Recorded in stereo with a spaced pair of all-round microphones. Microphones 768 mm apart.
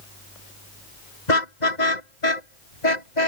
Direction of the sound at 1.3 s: 65° left (ahead or behind).